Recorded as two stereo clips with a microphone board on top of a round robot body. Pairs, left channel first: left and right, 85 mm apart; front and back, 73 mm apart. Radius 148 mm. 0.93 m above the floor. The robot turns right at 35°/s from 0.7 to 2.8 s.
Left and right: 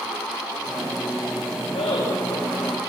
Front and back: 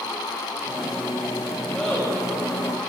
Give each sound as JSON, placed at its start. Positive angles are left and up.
{"t": 1.7, "sound": "laughter", "azimuth_deg": 80, "distance_m": 5.0}